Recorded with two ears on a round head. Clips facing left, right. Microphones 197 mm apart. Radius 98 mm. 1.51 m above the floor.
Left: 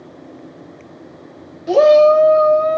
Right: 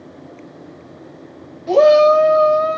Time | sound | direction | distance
1.7 | a shout | 10° left (ahead or behind) | 0.5 m